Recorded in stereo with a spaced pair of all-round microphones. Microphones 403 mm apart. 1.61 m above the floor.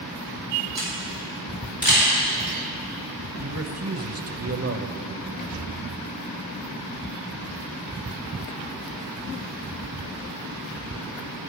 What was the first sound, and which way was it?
A camera shutter, 60° left (ahead or behind).